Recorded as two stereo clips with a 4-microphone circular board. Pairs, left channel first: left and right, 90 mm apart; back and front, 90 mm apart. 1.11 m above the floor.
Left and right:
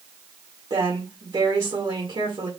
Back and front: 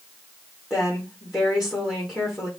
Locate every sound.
0.7 s a woman speaking: 80° right, 2 m